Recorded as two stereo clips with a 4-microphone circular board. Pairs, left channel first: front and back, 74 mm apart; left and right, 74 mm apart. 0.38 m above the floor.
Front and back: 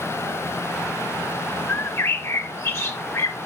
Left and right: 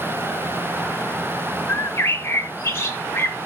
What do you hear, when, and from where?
1.7 s a bird: 45° left, 0.6 m